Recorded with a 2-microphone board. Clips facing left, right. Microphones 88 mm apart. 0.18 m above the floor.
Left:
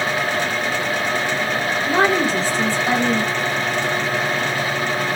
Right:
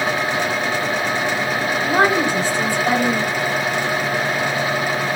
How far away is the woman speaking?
About 1.7 m.